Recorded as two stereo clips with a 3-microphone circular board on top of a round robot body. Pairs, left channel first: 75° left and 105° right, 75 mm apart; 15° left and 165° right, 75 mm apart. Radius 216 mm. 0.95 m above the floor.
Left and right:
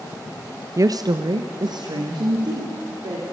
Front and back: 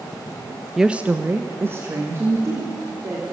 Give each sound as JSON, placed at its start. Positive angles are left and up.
{"t": 0.8, "sound": "a woman speaking", "azimuth_deg": -80, "distance_m": 0.8}